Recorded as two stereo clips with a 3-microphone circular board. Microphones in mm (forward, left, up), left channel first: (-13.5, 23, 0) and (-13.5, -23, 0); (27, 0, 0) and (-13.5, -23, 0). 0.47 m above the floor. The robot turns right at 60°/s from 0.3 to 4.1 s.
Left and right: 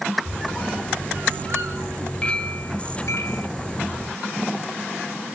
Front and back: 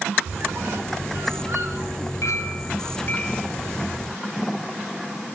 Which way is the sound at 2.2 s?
20° left.